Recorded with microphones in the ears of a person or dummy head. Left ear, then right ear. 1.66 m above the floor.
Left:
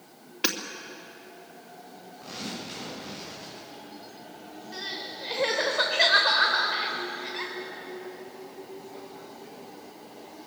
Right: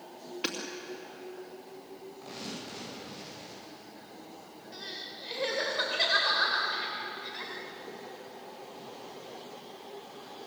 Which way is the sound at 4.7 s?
15° left (ahead or behind).